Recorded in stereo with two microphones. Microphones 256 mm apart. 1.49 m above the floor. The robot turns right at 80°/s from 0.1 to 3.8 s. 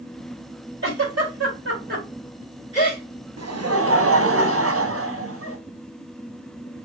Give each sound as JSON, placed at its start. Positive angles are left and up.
{"t": 0.8, "sound": "a giggle", "side_deg": -50, "distance_m": 2.5}
{"t": 3.4, "sound": "laughter", "azimuth_deg": -95, "distance_m": 1.1}